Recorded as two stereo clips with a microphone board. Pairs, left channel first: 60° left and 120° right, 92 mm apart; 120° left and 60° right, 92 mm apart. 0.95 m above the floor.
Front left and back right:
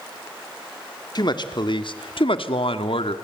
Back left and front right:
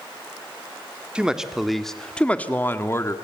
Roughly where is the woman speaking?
Ahead.